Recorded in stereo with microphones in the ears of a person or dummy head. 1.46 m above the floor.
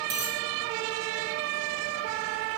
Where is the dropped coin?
20° right (ahead or behind), 1.7 m.